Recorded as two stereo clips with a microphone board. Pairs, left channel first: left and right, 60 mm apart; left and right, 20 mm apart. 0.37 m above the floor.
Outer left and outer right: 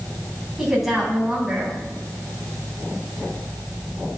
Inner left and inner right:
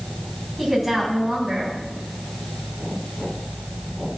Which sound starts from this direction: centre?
A woman speaking, at 0.6 s.